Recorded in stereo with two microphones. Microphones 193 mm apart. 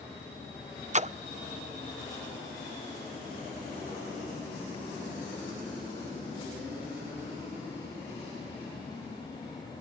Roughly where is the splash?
Right.